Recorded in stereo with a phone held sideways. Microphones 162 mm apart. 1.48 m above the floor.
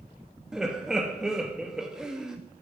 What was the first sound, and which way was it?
Laughter, 5° right (ahead or behind).